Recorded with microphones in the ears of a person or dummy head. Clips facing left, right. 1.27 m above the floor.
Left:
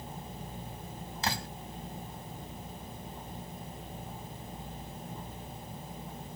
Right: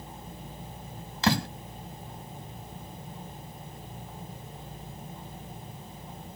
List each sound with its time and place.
1.2 s a door slam: 60° right (ahead or behind)